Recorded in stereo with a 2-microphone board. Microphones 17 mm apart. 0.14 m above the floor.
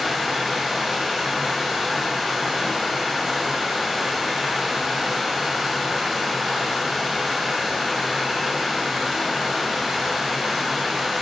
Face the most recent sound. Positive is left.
turn(degrees=-15)  # may be behind; listen again after turning